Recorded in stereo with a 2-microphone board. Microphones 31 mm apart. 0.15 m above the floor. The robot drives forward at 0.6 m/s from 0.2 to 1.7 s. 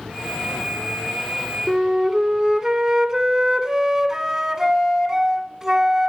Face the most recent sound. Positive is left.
turn(degrees=-15)  # may be behind; listen again after turning